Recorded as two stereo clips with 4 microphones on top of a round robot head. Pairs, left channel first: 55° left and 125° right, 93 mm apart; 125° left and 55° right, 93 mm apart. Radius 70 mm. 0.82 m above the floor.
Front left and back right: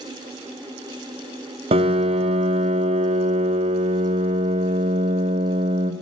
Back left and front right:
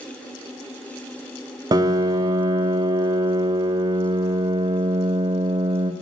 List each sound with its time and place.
1.7 s a piano: 105° right, 1.0 m